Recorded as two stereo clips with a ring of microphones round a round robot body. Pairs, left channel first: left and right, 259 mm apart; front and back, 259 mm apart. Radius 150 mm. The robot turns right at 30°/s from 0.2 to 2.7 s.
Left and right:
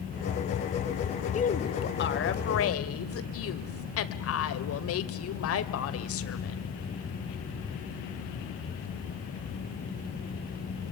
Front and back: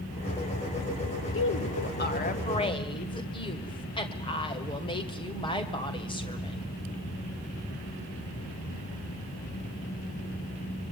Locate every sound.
1.3 s a woman speaking: 30° left, 1.9 m; by 6.6 s 70° left, 1.9 m